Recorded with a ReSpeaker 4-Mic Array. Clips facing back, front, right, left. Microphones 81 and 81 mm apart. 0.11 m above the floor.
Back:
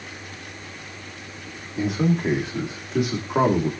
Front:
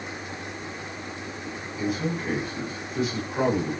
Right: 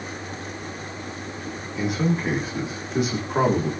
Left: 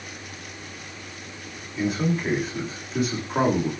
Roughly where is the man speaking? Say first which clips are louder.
Back 6 dB, even; behind.